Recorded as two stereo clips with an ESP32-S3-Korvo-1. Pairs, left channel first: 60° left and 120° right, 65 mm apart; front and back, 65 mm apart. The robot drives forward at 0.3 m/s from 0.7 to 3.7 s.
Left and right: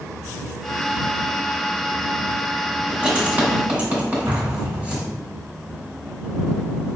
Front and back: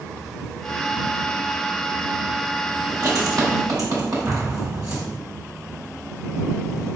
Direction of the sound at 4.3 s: 140° right.